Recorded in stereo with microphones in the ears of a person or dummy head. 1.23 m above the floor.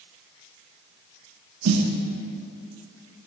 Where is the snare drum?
85° right, 1.1 m.